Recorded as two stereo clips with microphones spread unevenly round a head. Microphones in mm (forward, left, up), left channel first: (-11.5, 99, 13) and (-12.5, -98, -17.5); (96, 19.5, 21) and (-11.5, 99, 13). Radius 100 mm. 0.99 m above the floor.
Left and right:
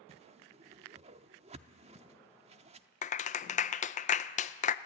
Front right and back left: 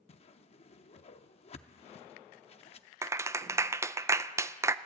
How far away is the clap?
About 0.5 m.